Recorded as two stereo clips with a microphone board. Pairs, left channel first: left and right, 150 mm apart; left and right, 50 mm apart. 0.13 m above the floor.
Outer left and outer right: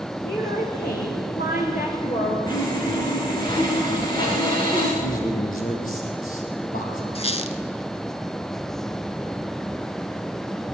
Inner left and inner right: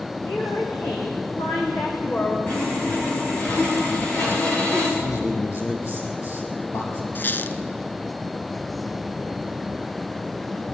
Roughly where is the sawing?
Left.